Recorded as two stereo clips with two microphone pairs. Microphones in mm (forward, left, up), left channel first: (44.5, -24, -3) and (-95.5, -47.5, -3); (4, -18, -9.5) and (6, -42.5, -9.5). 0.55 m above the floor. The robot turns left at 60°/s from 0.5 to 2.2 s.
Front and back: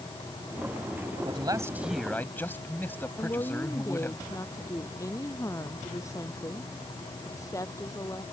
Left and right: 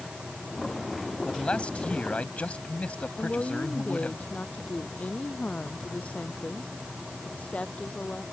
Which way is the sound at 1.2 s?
145° left.